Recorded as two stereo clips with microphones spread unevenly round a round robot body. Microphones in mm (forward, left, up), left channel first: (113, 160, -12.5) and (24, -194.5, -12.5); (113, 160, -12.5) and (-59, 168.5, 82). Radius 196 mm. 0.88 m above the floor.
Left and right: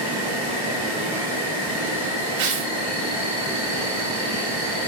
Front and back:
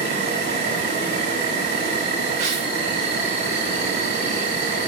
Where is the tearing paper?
130° right, 4 m.